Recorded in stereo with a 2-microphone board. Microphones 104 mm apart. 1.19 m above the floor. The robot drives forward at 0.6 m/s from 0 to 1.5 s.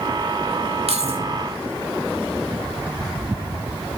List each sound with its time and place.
0.9 s keys jangling: 85° right, 1.9 m; by 1.2 s 90° right, 1.9 m